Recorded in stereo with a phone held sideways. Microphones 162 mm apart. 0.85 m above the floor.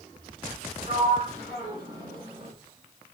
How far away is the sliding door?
About 2.5 m.